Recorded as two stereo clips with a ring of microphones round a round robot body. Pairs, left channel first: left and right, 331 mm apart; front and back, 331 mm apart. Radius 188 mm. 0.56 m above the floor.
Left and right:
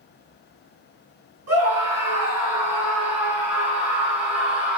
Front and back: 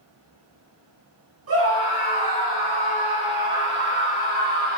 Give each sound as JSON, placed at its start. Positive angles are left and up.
{"t": 1.5, "sound": "a scream", "azimuth_deg": -135, "distance_m": 4.0}